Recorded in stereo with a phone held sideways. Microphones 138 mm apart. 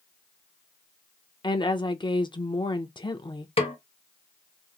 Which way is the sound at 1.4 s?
35° left (ahead or behind).